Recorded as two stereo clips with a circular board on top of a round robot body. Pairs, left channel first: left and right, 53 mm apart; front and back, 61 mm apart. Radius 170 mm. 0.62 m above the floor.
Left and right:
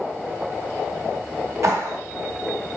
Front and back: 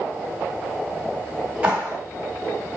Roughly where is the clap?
Right.